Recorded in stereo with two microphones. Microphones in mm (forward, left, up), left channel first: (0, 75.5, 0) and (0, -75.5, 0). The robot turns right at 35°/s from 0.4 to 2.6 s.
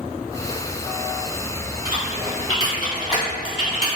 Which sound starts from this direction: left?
Typing on a keyboard, at 1.9 s.